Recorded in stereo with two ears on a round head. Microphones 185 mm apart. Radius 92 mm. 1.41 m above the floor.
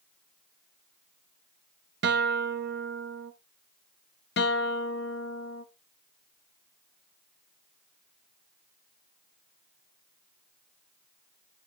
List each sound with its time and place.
2.0 s a guitar: 55° right (ahead or behind), 0.7 m
4.4 s a guitar: 55° left (ahead or behind), 1.1 m